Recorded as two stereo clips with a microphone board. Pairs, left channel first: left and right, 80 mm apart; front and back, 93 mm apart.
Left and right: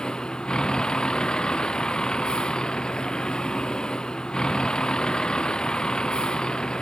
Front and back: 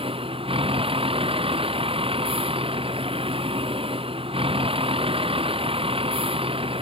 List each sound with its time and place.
0.0 s a vehicle: 170° left